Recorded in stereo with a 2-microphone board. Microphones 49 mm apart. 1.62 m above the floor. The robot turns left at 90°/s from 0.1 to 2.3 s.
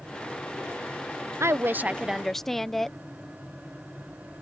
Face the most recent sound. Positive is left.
turn(degrees=170)